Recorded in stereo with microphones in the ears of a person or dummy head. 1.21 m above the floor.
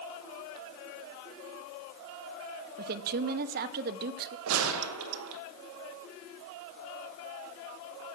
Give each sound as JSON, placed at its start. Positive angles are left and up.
{"t": 2.8, "sound": "a woman speaking", "side_deg": -50, "distance_m": 0.6}
{"t": 4.5, "sound": "a gunshot", "side_deg": -75, "distance_m": 0.7}